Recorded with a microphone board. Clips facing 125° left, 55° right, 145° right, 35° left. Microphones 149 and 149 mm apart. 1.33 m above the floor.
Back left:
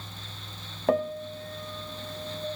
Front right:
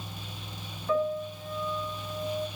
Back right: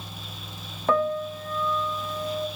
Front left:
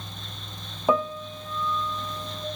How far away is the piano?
About 1.4 m.